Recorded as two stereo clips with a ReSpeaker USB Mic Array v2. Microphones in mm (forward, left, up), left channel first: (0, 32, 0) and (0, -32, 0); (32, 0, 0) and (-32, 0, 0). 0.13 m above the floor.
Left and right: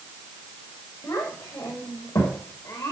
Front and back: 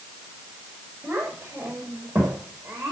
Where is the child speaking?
105° left, 7 m; by 2.9 s 100° left, 6 m.